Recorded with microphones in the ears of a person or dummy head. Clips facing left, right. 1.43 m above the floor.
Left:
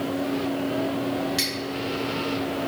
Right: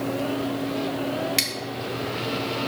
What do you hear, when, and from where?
1.4 s scissors: 30° right (ahead or behind), 0.6 m